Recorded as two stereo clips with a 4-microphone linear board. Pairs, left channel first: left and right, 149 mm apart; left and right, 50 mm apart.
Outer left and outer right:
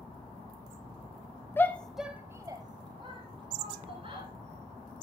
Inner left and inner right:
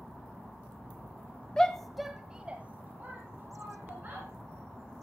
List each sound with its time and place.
1.6 s a shout: 15° left (ahead or behind), 1.3 m; by 4.3 s 40° right (ahead or behind), 3.5 m